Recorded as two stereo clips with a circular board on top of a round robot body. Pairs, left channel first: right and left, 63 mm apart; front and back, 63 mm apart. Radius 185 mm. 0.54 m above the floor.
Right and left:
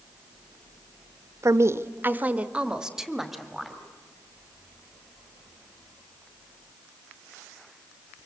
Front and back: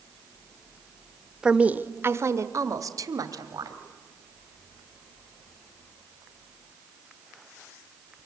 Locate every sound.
1.4 s a woman speaking: 105° left, 1.2 m; by 3.8 s 175° right, 2.5 m